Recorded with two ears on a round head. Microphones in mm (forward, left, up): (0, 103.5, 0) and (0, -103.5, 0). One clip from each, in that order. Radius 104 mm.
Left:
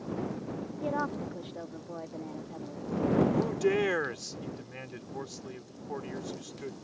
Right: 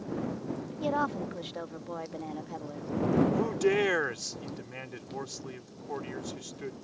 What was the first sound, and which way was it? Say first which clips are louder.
A woman speaking: right 3 dB; 45° right (ahead or behind).